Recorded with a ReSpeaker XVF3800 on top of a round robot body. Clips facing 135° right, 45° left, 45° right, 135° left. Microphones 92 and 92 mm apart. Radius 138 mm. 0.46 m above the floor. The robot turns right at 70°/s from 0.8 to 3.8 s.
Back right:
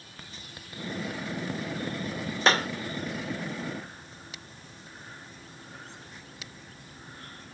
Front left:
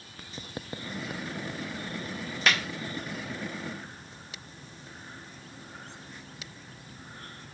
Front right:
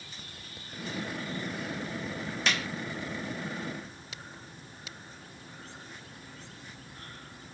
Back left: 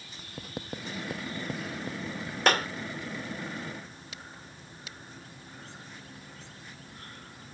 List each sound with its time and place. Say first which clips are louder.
0.4 s writing: front left 4 dB, back left 6 dB; 105° left; by 2.4 s 145° right
2.5 s a clap: back right 4 dB, back left 8 dB; 170° left; by 2.7 s 175° right